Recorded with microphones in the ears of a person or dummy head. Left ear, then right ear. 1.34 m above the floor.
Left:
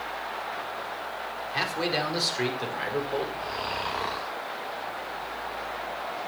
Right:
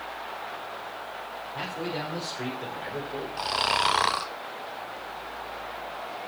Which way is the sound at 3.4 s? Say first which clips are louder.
Right 6 dB; 55° right (ahead or behind).